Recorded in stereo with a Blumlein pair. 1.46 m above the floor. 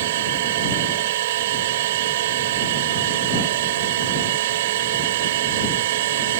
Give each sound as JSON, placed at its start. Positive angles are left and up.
{"t": 0.0, "sound": "a machine running", "azimuth_deg": -55}